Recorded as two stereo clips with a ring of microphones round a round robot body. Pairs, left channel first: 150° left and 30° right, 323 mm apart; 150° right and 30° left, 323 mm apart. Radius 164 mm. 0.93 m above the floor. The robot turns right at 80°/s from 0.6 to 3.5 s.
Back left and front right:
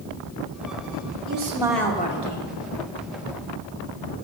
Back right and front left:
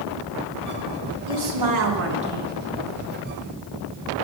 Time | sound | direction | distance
1.3 | a woman speaking | 20° left | 2.5 m